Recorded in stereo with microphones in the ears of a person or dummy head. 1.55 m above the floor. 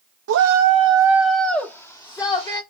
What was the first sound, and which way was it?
A shout, 65° right (ahead or behind).